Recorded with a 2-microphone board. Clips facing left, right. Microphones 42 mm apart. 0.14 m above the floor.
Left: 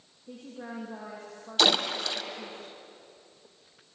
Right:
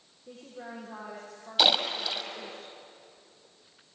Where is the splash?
10° right (ahead or behind), 1.9 m.